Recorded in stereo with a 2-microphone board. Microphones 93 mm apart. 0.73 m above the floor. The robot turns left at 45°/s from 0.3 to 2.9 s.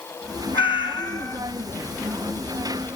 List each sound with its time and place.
0.5 s a cat meowing: 75° left, 3.5 m; by 1.4 s 40° left, 3.5 m